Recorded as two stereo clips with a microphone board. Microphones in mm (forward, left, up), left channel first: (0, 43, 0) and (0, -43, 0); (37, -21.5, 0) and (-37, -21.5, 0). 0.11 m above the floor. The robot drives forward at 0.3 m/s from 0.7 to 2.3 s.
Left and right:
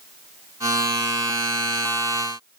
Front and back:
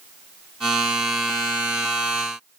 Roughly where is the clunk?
I don't hear a clunk.